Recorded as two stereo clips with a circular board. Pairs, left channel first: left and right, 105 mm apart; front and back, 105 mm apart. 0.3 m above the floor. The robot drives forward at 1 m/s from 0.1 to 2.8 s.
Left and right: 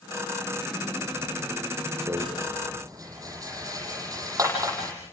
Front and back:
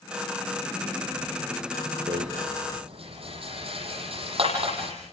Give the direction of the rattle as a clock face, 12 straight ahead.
5 o'clock.